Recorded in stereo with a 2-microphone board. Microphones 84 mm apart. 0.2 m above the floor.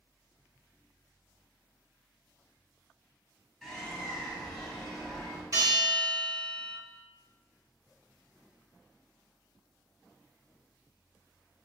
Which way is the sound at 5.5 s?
50° right (ahead or behind).